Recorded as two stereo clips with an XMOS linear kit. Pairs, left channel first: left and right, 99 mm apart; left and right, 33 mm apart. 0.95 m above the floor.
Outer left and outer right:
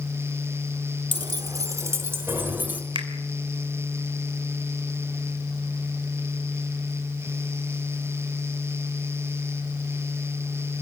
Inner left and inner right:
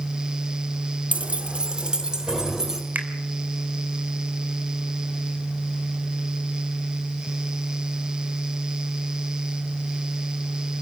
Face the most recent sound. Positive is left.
turn(degrees=-60)  # may be behind; listen again after turning